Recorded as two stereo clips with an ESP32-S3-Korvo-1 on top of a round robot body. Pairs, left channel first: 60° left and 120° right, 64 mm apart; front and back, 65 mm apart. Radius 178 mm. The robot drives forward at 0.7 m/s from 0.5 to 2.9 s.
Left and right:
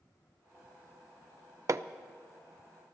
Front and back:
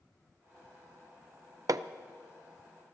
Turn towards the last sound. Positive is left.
turn(degrees=-170)